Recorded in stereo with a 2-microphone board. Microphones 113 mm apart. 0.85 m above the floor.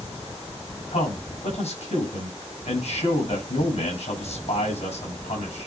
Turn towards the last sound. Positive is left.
turn(degrees=65)  # may be behind; listen again after turning